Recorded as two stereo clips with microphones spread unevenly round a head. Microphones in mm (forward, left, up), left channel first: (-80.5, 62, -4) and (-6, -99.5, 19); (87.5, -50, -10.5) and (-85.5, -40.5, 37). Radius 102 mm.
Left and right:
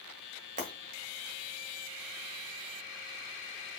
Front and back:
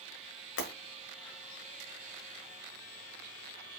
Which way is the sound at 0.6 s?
15° right.